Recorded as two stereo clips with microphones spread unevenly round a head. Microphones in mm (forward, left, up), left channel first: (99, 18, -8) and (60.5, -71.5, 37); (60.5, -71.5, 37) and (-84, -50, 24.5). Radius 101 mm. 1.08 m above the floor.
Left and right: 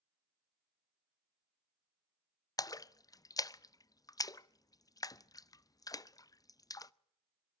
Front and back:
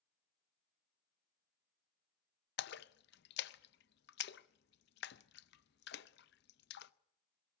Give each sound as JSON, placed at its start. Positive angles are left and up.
{"t": 2.6, "sound": "a splash", "azimuth_deg": 5, "distance_m": 0.5}